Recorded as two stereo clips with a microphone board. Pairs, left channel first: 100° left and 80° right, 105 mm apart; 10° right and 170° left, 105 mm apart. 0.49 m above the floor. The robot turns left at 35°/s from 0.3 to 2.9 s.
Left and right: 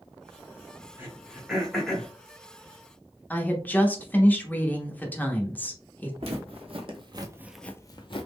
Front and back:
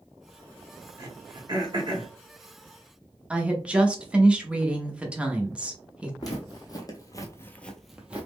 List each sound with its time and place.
1.0 s throat clearing: 145° right, 1.0 m; by 2.1 s 175° left, 1.0 m
3.3 s a woman speaking: 115° left, 0.6 m
6.2 s footsteps: 65° right, 1.3 m; by 8.3 s 95° left, 0.7 m